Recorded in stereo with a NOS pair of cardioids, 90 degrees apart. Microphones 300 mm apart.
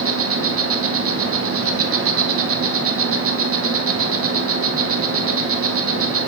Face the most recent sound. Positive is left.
turn(degrees=-50)